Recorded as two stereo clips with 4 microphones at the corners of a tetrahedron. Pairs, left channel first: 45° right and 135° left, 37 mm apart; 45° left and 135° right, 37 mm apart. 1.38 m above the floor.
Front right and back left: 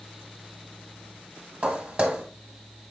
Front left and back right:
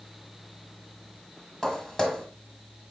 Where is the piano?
No piano in this recording.